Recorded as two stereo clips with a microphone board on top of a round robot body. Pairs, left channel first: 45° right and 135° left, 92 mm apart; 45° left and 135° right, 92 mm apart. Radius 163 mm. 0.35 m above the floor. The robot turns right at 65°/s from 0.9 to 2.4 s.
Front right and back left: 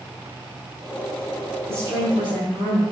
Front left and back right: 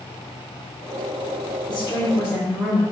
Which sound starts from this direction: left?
A woman speaking, at 1.7 s.